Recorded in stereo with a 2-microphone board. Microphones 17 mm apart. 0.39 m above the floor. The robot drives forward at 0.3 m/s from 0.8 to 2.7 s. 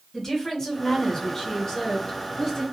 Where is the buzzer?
I don't hear a buzzer.